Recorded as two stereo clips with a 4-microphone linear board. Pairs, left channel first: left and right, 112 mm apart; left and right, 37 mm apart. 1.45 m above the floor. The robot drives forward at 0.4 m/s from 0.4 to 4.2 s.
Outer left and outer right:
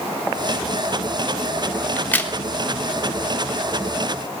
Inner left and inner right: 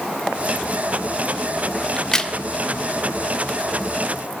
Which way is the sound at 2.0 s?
15° left (ahead or behind).